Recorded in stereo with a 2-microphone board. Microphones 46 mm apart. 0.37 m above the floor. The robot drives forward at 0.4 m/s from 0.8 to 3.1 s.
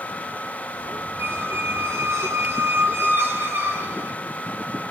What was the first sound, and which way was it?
A squeak, 70° right (ahead or behind).